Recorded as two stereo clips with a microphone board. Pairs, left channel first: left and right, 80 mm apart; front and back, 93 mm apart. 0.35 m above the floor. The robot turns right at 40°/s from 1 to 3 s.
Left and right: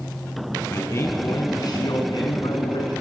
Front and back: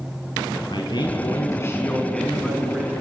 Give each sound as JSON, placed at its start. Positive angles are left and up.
{"t": 0.7, "sound": "a man speaking", "azimuth_deg": 35, "distance_m": 3.5}